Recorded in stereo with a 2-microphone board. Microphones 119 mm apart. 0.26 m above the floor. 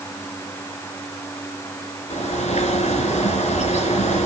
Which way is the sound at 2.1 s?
70° left (ahead or behind).